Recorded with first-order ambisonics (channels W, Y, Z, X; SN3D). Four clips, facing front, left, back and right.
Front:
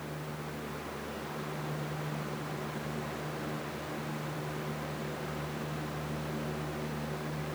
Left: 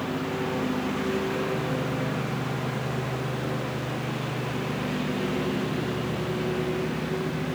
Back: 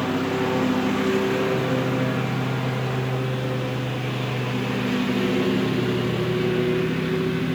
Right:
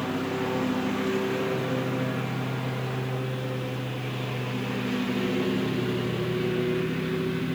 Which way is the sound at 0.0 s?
175° right.